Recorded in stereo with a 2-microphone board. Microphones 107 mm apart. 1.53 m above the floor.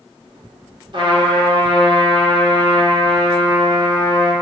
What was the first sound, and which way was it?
A trumpet, 50° right (ahead or behind).